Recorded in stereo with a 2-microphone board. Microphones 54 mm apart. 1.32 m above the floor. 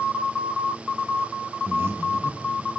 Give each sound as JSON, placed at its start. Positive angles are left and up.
{"t": 1.7, "sound": "breathing", "side_deg": -50, "distance_m": 1.2}